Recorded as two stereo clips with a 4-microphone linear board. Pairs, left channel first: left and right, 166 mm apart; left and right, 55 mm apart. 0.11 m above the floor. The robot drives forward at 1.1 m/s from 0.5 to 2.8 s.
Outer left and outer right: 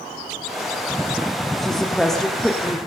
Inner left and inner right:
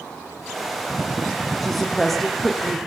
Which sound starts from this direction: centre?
A woman speaking, at 1.6 s.